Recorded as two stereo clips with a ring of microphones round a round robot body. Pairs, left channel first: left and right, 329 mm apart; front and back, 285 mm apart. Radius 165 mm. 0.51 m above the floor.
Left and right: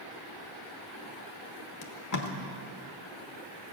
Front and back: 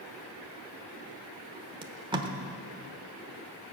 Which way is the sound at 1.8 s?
110° left.